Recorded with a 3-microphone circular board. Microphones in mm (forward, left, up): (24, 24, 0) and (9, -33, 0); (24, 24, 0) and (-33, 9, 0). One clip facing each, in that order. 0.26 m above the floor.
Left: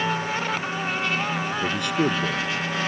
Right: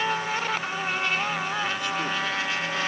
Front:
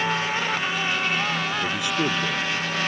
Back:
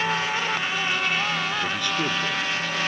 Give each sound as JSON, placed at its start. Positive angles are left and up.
{"t": 1.6, "sound": "a man speaking", "azimuth_deg": 90}